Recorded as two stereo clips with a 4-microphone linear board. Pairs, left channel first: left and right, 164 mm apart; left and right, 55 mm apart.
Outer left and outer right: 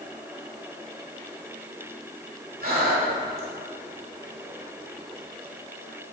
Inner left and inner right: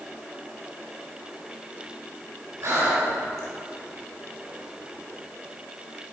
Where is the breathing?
60° right (ahead or behind), 1.5 m.